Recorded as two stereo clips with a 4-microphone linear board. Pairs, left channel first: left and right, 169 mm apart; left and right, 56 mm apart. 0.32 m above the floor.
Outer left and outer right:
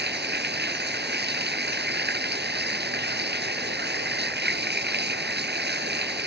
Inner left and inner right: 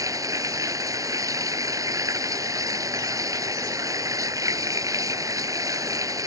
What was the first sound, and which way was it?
Running water, 75° right (ahead or behind).